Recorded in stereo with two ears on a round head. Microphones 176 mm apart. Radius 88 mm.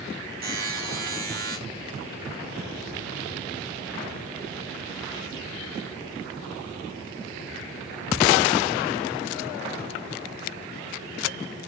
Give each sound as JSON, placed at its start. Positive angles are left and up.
{"t": 0.4, "sound": "a buzzer", "side_deg": -50, "distance_m": 6.5}